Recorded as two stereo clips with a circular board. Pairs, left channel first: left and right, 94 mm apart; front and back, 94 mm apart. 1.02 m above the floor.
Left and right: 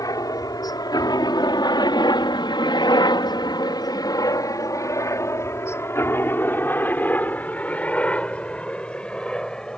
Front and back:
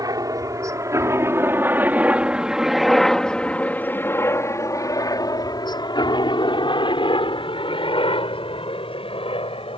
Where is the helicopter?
135° left; by 9.8 s 10° left.